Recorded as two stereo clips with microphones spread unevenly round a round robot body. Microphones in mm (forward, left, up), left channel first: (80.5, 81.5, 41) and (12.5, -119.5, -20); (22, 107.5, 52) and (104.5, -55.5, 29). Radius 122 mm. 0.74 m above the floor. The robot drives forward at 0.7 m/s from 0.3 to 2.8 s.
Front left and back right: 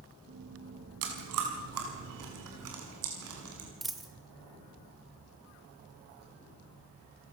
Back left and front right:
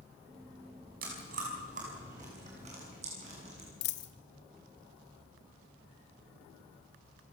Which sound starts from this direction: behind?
A dropped coin, at 3.8 s.